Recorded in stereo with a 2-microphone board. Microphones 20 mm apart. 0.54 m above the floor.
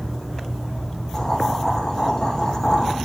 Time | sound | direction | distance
1.1 | boiling | 30° left (ahead or behind) | 7.5 m